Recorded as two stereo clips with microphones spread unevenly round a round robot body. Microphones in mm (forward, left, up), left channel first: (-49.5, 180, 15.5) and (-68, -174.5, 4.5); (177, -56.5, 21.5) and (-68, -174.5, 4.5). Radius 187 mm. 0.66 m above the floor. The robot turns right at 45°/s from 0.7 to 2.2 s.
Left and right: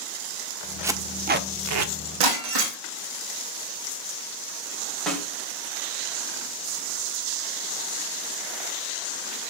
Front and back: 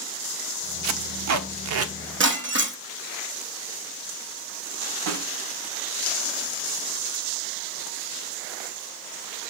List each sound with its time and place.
0.8 s tape being pulled: 175° right, 1.2 m; by 1.9 s 125° right, 1.2 m
2.2 s breaking glass: 110° right, 2.5 m
5.1 s a snare drum: 175° left, 3 m